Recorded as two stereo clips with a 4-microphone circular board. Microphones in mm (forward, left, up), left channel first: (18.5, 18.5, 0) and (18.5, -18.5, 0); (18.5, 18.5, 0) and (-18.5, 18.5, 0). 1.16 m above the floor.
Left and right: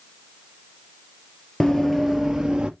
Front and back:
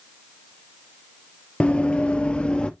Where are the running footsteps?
20° left, 1.2 m; by 2.7 s 45° right, 1.4 m.